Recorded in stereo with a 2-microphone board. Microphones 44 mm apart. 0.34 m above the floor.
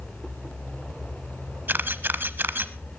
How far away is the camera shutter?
About 0.9 m.